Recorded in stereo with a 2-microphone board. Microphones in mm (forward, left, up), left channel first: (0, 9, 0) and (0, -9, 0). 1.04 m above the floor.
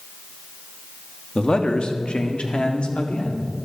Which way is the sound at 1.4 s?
55° left (ahead or behind).